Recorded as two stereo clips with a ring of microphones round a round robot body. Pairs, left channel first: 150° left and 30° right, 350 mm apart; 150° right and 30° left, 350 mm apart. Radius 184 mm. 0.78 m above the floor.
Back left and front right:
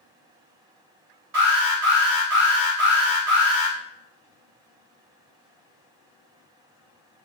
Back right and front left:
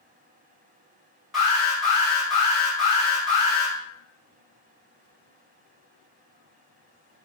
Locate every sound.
1.3 s an alarm: 60° right, 1.6 m